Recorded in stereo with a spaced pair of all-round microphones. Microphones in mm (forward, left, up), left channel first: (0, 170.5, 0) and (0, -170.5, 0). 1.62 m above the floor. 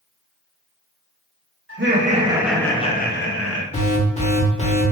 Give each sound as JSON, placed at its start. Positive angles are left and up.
{"t": 1.7, "sound": "laughter", "side_deg": -40, "distance_m": 0.7}
{"t": 3.7, "sound": "an alarm", "side_deg": 20, "distance_m": 0.8}